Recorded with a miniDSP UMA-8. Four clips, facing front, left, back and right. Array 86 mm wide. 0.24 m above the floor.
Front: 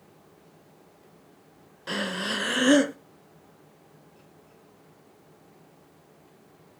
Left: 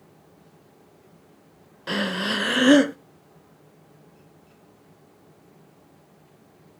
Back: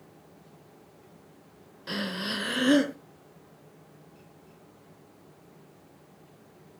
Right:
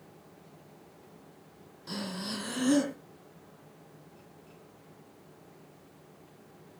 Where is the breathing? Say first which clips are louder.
Left 11 dB, front 3 dB; 75° left, 0.6 m.